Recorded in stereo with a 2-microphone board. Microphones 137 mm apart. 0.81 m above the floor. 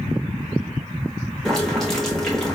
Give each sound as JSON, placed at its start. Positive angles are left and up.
{"t": 1.4, "sound": "boiling", "side_deg": 0, "distance_m": 1.0}